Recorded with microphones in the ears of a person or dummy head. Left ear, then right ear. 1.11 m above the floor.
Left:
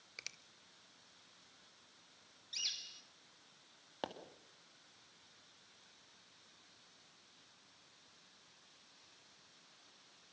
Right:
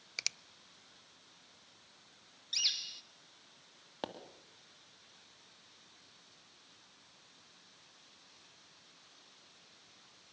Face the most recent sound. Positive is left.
turn(degrees=10)  # may be behind; listen again after turning